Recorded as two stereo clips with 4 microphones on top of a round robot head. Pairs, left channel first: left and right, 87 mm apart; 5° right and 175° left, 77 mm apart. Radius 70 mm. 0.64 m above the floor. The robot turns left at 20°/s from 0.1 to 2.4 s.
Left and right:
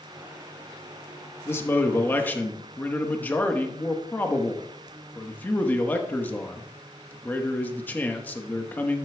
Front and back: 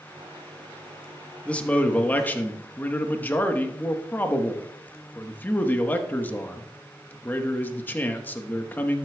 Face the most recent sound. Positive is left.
turn(degrees=35)